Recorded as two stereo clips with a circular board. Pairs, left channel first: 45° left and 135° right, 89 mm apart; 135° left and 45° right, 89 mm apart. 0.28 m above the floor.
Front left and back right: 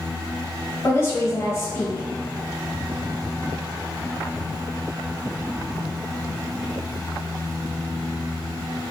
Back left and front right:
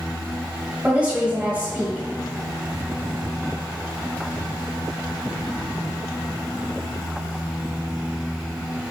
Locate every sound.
0.8 s a woman speaking: 20° left, 1.3 m